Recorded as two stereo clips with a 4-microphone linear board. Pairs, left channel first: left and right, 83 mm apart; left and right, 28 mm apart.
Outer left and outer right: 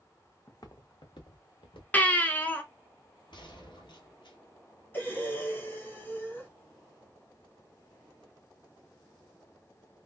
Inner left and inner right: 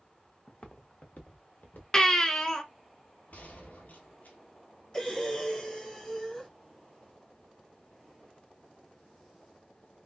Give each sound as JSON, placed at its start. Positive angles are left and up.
{"t": 0.5, "sound": "footsteps", "side_deg": 40, "distance_m": 0.6}
{"t": 1.9, "sound": "a baby crying", "side_deg": 20, "distance_m": 0.7}
{"t": 3.3, "sound": "a gunshot", "side_deg": 70, "distance_m": 1.1}
{"t": 4.9, "sound": "breathing", "side_deg": 25, "distance_m": 0.9}